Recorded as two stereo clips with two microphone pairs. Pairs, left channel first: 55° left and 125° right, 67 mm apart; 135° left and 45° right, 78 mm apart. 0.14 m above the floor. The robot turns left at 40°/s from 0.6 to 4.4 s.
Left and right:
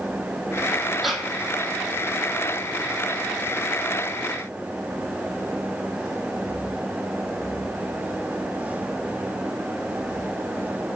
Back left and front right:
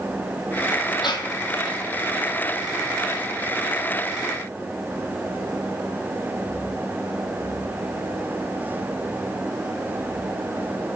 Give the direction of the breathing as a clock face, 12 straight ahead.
7 o'clock.